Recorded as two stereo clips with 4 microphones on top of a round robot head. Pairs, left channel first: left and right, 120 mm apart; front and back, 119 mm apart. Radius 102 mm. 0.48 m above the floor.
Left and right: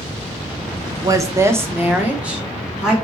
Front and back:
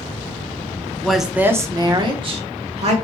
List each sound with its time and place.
1.0 s a woman speaking: 75° right, 0.7 m; by 2.9 s 175° right, 1.3 m